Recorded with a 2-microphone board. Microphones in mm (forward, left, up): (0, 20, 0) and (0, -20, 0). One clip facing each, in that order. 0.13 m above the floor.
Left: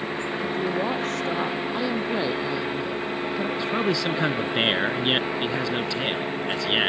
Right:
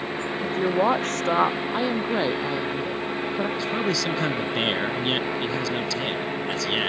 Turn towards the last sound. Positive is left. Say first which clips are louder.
# left 1 dB
turn(degrees=25)  # may be behind; listen again after turning